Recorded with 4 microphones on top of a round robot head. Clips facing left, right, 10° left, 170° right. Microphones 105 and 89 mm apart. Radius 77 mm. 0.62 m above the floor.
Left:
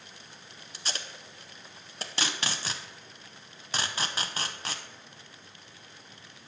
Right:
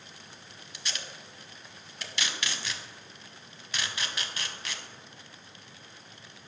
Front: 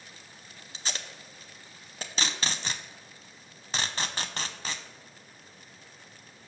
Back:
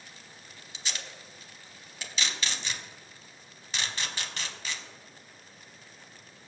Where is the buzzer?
No buzzer in this recording.